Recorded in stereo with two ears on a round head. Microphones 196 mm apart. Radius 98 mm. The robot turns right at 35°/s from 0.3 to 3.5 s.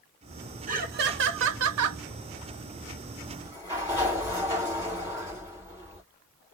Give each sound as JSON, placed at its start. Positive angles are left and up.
{"t": 0.7, "sound": "laughter", "azimuth_deg": -140, "distance_m": 0.7}
{"t": 3.3, "sound": "a sliding door", "side_deg": 5, "distance_m": 3.0}